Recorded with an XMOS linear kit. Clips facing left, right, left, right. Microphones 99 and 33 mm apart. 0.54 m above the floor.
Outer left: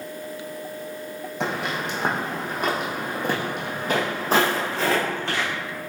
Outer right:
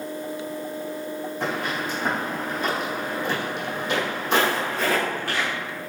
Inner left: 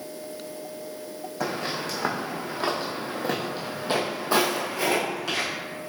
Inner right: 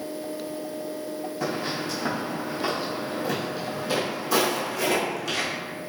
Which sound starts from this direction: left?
Footsteps, at 1.4 s.